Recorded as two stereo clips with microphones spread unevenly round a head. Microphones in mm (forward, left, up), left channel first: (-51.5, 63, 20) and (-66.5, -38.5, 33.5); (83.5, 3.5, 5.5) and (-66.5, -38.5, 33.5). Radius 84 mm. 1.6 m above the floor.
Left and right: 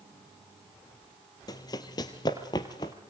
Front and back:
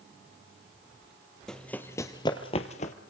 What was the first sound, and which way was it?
Running footsteps, 115° left.